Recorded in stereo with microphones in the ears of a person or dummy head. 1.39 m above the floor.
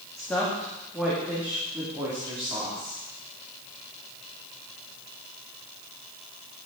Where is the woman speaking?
10° left (ahead or behind), 2 m; by 3.0 s 20° right (ahead or behind), 3 m.